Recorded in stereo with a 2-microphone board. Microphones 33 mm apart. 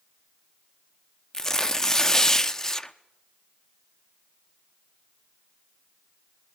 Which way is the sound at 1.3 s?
20° left (ahead or behind).